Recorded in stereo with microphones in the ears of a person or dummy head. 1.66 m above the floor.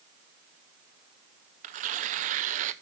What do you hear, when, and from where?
1.6 s tearing paper: 40° right (ahead or behind), 0.6 m